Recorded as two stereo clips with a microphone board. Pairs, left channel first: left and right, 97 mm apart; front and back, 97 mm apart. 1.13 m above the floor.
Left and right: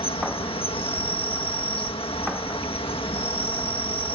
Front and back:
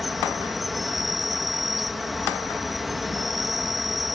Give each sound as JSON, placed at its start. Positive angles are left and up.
{"t": 0.0, "sound": "an insect", "azimuth_deg": 90}